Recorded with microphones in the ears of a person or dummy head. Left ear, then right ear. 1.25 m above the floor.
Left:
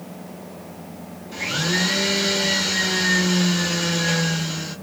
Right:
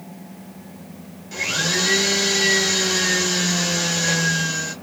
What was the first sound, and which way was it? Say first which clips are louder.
A blender: right 2 dB; 55° right (ahead or behind).